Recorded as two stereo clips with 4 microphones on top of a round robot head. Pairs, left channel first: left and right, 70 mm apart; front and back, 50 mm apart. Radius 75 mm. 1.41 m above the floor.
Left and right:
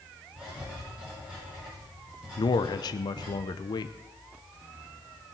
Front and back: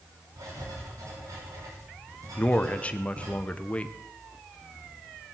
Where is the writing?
165° right, 6 m.